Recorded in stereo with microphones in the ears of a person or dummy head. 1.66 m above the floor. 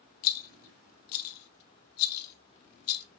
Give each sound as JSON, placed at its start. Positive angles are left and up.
{"t": 0.2, "sound": "a rattle", "side_deg": 75, "distance_m": 0.7}